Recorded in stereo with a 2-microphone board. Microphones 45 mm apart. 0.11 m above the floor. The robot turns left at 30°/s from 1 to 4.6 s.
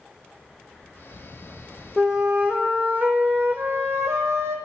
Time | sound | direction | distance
2.0 | a flute | 10° right | 0.9 m